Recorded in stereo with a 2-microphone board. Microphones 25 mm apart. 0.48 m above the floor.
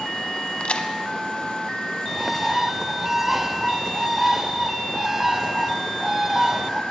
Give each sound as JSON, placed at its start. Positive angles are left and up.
{"t": 0.6, "sound": "a crack", "side_deg": 55, "distance_m": 0.8}
{"t": 2.1, "sound": "a bird", "side_deg": -15, "distance_m": 0.5}